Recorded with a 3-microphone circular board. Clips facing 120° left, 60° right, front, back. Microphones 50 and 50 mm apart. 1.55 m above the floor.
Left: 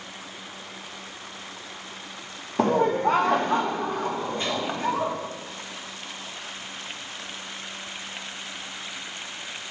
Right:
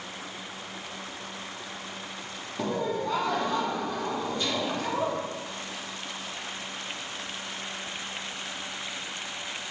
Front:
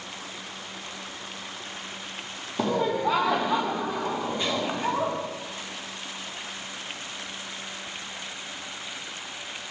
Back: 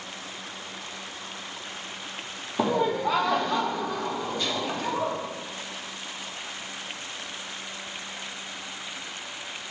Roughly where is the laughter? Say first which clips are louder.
Left 8 dB, back 1 dB; left.